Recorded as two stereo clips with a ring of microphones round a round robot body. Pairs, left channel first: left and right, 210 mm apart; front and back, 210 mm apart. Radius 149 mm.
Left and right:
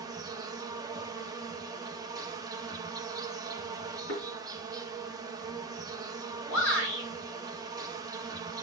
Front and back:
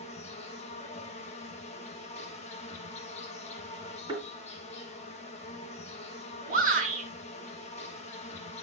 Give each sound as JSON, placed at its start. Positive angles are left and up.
{"t": 0.0, "sound": "an insect", "azimuth_deg": -30, "distance_m": 0.9}
{"t": 4.1, "sound": "a thud", "azimuth_deg": 115, "distance_m": 3.5}
{"t": 6.5, "sound": "a shout", "azimuth_deg": 130, "distance_m": 5.5}